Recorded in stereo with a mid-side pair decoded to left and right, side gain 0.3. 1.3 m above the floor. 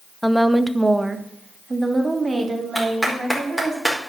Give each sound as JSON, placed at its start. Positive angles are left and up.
{"t": 0.2, "sound": "a woman speaking", "azimuth_deg": 0, "distance_m": 0.9}
{"t": 2.8, "sound": "a clap", "azimuth_deg": -5, "distance_m": 4.5}